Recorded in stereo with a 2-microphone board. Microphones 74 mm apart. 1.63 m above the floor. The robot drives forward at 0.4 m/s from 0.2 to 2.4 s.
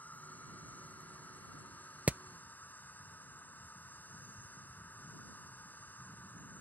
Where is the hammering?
20° right (ahead or behind).